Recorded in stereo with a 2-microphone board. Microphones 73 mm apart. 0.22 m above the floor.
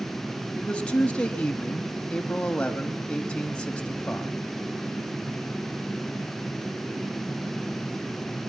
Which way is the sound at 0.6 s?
15° left (ahead or behind).